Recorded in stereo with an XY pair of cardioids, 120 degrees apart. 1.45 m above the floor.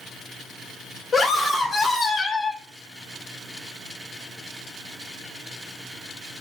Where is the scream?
15° left, 1.5 m.